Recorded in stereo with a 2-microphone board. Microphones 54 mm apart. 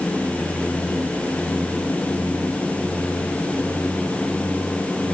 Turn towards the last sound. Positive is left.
No sound to turn to.